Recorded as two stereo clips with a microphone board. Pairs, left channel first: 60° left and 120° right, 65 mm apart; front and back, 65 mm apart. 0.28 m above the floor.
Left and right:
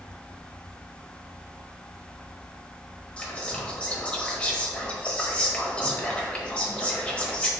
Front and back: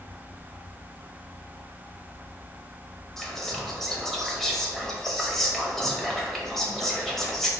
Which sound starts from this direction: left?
Whispering, at 3.2 s.